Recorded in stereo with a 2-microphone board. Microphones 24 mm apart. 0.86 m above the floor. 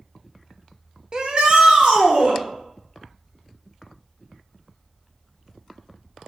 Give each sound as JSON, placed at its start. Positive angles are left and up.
{"t": 1.1, "sound": "a shout", "side_deg": -35, "distance_m": 0.5}